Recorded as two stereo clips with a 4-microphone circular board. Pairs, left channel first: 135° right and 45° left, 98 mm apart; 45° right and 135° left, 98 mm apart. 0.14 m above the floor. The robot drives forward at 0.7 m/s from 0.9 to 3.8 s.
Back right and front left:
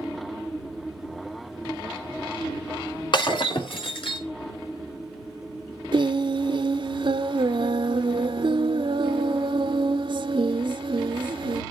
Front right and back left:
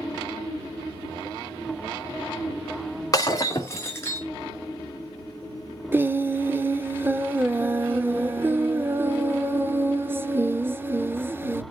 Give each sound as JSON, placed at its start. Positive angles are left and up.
{"t": 3.1, "sound": "breaking glass", "azimuth_deg": -100, "distance_m": 2.5}
{"t": 5.9, "sound": "singing", "azimuth_deg": 70, "distance_m": 0.5}